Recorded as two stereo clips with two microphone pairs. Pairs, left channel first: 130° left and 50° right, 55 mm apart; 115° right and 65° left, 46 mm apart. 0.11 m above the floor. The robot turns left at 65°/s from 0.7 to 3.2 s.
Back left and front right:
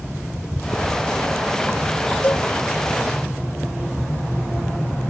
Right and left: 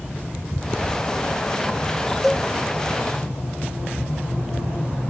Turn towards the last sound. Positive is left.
turn(degrees=80)